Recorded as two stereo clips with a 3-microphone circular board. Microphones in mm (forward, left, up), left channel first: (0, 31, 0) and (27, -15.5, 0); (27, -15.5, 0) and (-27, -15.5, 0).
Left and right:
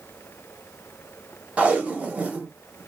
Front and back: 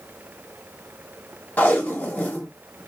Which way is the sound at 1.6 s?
20° right.